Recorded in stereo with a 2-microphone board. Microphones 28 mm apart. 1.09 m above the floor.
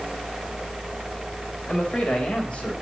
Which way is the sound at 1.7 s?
50° left (ahead or behind).